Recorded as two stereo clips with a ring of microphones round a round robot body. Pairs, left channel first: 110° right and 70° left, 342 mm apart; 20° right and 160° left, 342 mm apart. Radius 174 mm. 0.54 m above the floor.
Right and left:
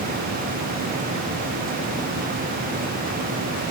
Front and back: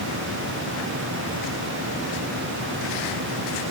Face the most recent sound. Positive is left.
No sound to turn to.